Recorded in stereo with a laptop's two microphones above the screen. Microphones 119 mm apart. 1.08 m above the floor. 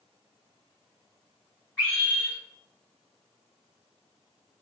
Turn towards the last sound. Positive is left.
turn(degrees=25)  # may be behind; listen again after turning